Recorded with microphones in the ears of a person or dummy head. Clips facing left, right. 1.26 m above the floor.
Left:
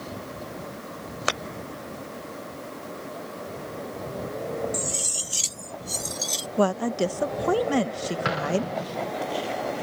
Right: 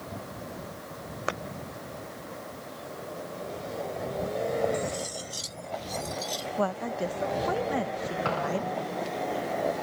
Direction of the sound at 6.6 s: 60° left (ahead or behind).